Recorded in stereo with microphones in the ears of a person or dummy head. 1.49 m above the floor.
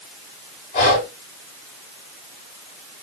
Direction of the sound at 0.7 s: 45° left (ahead or behind).